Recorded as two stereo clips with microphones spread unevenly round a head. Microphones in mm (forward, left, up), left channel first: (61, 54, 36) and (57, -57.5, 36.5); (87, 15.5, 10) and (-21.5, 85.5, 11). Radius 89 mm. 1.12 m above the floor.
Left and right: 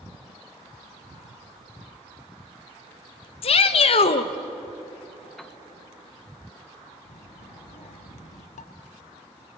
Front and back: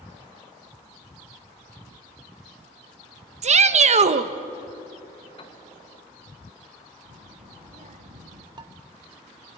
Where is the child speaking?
125° left, 1.9 m.